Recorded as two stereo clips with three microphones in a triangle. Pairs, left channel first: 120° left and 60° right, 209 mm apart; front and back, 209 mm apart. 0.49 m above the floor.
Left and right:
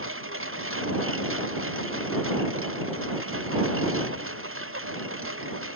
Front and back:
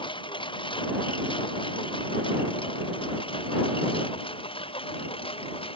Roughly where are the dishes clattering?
I don't hear dishes clattering.